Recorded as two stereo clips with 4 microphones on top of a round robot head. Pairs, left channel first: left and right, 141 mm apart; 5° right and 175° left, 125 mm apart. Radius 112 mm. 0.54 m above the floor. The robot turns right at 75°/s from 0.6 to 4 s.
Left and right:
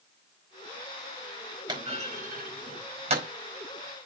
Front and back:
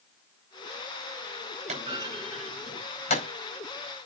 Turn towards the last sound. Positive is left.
turn(degrees=25)